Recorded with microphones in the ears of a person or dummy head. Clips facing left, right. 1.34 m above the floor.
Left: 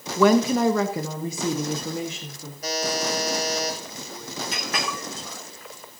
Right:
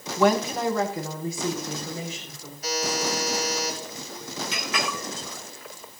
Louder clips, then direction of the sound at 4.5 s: Right 1 dB; 35° left (ahead or behind).